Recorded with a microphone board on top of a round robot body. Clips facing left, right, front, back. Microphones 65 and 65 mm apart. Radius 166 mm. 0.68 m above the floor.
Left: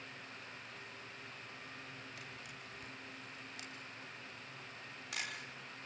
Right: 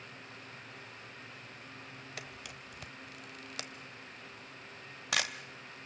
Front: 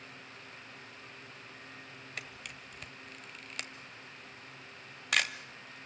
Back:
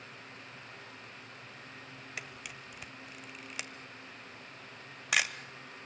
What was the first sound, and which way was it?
A camera shutter, 95° right.